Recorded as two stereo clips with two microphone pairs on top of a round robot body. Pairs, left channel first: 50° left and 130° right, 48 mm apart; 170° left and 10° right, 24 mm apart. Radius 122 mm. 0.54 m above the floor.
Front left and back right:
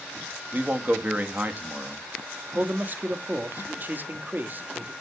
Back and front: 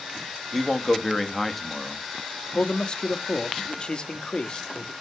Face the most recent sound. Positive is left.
turn(degrees=180)